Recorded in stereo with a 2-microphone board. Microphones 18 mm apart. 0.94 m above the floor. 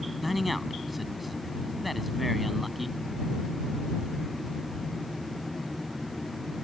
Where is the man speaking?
5° right (ahead or behind).